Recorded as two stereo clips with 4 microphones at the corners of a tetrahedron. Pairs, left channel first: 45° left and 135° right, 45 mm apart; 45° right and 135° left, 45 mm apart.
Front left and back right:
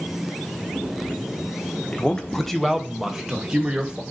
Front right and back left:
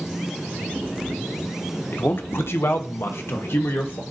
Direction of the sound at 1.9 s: 15° right.